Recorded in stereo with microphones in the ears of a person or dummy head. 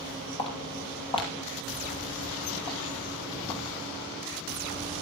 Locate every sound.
0.4 s footsteps: 30° left (ahead or behind), 2 m; by 3.8 s 25° left (ahead or behind), 3.5 m